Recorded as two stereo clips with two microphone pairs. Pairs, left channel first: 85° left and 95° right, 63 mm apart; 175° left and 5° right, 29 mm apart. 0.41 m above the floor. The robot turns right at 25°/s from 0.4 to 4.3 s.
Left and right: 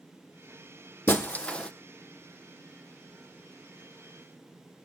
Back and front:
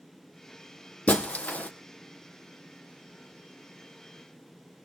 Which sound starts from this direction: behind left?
Breaking glass, at 1.1 s.